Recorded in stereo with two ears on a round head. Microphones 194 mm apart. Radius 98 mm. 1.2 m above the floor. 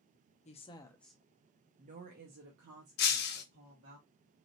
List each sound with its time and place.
0.5 s a woman speaking: 35° left (ahead or behind), 0.6 m; by 4.0 s 65° right (ahead or behind), 1.6 m
3.0 s breaking glass: 50° left (ahead or behind), 0.6 m